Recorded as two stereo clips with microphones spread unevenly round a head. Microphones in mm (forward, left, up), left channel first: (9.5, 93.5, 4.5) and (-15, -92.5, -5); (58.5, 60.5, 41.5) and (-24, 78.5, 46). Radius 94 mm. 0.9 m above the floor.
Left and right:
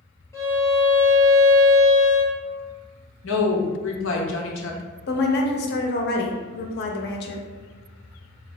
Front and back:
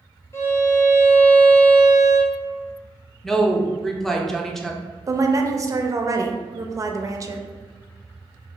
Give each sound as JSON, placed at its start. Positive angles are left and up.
{"t": 0.3, "sound": "a violin", "azimuth_deg": 10, "distance_m": 1.1}
{"t": 3.2, "sound": "a woman speaking", "azimuth_deg": 75, "distance_m": 0.8}
{"t": 5.1, "sound": "a woman speaking", "azimuth_deg": 115, "distance_m": 0.7}